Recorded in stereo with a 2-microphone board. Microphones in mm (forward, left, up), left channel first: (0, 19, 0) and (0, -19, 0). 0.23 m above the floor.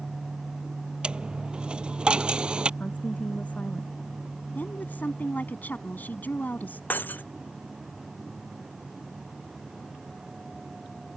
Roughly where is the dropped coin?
Right.